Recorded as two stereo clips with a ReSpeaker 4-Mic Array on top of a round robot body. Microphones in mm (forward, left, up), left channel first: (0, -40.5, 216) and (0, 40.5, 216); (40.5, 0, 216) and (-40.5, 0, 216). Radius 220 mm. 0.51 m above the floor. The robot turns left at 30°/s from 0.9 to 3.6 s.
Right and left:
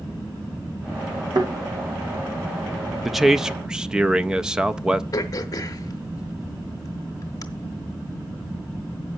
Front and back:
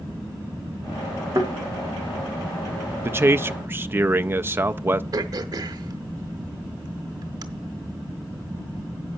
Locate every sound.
1.4 s a thud: 125° left, 2 m; by 1.5 s 120° left, 2 m
3.0 s a man speaking: 175° left, 0.6 m; by 5.0 s 160° left, 0.6 m
5.1 s throat clearing: 140° right, 0.7 m